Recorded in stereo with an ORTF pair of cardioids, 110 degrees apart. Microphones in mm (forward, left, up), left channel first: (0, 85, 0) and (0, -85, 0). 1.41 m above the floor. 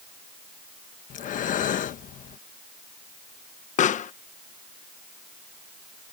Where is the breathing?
50° left.